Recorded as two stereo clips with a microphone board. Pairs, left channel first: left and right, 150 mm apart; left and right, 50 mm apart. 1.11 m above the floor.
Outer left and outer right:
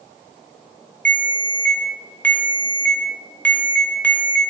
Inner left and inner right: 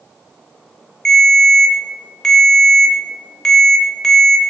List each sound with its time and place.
1.1 s a ringtone: 10° left (ahead or behind), 0.5 m